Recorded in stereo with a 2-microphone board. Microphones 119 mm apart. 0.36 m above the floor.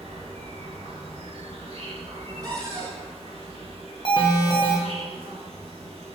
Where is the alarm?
40° left (ahead or behind), 0.6 m.